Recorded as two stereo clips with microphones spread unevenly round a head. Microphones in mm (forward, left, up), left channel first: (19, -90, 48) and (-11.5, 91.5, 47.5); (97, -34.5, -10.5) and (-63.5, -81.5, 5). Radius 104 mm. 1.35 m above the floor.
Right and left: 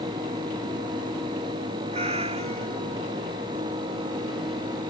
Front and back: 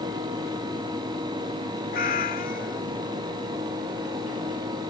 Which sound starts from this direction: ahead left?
A cat meowing, at 1.9 s.